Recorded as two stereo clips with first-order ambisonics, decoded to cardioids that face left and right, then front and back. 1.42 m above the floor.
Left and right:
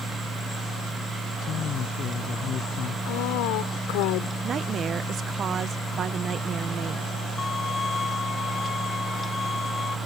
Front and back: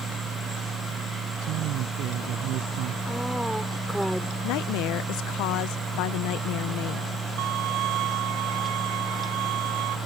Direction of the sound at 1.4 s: 145° left.